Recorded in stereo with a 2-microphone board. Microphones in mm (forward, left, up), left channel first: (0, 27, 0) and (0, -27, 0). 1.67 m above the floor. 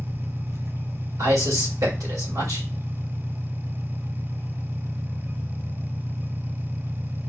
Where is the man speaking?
80° right, 3 m.